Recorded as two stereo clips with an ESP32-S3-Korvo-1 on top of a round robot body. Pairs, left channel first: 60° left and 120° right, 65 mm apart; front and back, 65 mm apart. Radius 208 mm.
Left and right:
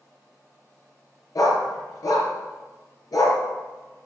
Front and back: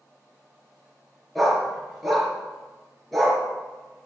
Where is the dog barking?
90° left, 3.5 m.